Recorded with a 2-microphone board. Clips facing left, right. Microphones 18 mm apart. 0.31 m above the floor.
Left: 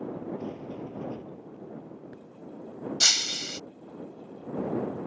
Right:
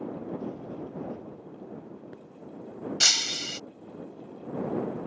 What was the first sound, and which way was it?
A sliding door, 60° left (ahead or behind).